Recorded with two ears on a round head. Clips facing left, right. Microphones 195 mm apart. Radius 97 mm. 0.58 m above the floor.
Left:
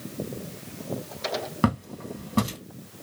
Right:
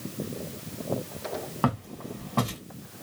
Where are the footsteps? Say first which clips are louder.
Left 3 dB; 30° left (ahead or behind), 1.4 m.